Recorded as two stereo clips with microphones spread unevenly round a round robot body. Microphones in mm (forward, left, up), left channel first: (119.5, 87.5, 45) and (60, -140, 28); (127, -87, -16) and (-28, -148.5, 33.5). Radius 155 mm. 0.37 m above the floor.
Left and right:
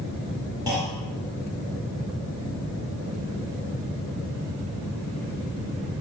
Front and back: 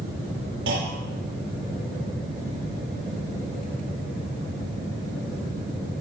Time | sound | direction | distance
0.7 | a clunk | 175° left | 3.5 m